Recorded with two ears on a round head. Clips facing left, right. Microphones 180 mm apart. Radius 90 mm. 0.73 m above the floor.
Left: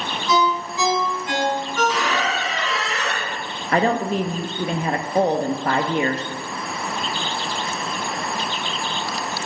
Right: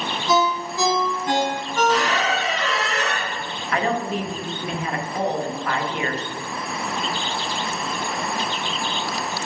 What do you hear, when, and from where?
0.3 s a ringtone: 35° right (ahead or behind), 4 m
1.9 s a squeak: 35° right (ahead or behind), 3 m
3.7 s a woman speaking: 30° left (ahead or behind), 0.7 m